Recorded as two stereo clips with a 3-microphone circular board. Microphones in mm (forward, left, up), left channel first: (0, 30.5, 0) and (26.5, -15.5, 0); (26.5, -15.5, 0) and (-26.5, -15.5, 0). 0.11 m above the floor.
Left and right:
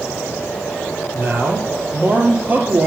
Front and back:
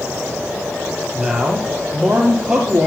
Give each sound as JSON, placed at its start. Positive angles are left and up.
{"t": 1.1, "sound": "a man speaking", "azimuth_deg": -100, "distance_m": 3.0}